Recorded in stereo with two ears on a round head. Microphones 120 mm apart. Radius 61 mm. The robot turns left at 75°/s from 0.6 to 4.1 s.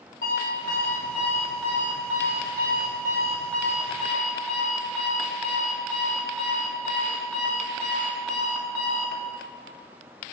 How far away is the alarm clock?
About 1.1 m.